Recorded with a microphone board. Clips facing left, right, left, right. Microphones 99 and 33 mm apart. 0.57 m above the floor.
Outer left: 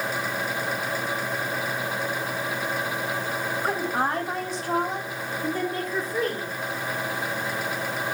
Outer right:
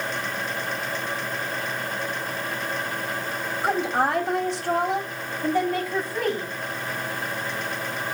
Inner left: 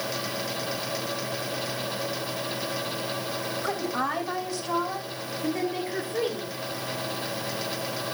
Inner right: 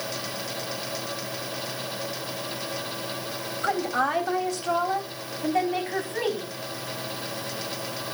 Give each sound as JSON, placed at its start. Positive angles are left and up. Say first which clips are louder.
{"t": 3.6, "sound": "a woman speaking", "louder": "outer right 4 dB, inner right 5 dB", "side_deg": -70, "distance_m": 3.5}